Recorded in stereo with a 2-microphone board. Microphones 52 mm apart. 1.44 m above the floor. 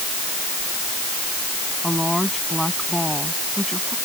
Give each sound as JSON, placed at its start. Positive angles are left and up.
{"t": 1.8, "sound": "a woman speaking", "side_deg": 0}